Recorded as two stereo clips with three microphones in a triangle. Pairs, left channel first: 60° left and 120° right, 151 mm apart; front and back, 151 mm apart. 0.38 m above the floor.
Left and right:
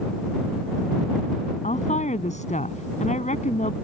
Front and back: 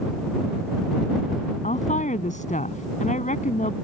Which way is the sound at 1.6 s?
30° left.